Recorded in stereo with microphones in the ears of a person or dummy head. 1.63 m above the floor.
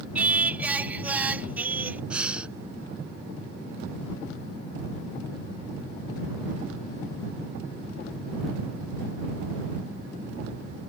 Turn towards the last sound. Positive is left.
turn(degrees=-10)  # may be behind; listen again after turning